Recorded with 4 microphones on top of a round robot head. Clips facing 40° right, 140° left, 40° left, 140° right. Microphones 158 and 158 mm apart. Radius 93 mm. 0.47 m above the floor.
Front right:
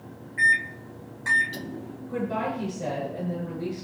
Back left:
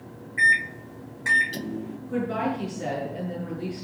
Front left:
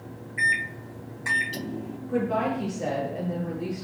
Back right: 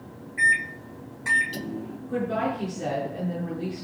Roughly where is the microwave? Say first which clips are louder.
Back left 1 dB, back right 3 dB; behind left.